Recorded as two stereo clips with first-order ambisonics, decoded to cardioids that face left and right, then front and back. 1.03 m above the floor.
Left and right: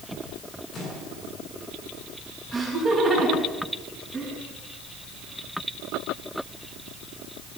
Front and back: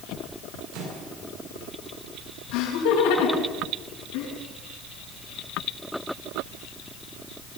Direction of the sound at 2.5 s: 5° right.